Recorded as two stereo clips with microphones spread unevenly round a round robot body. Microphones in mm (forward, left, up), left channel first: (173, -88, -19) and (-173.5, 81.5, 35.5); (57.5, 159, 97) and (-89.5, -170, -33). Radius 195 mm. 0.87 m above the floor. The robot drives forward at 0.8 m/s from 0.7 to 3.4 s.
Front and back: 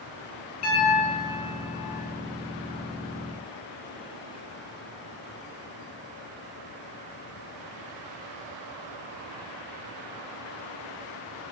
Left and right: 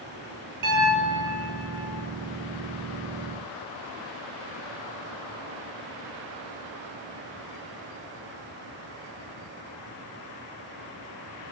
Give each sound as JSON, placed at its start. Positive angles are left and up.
{"t": 0.6, "sound": "a piano", "azimuth_deg": -80, "distance_m": 8.0}